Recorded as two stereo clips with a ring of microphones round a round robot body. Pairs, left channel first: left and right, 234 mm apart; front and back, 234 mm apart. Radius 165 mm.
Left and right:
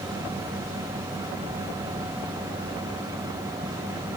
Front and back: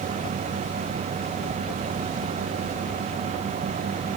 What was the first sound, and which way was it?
Only background noise.